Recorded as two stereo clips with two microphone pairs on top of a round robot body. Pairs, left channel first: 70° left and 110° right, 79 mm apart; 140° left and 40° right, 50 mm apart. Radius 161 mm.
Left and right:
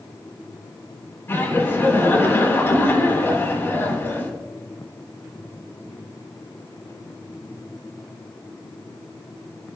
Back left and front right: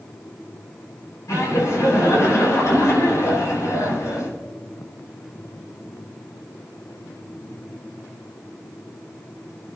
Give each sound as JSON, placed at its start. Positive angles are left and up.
{"t": 1.3, "sound": "laughter", "azimuth_deg": 130, "distance_m": 8.5}